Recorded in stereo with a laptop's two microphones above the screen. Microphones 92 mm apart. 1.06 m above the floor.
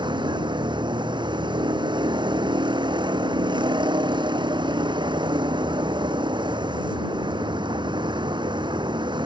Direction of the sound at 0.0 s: 60° right (ahead or behind).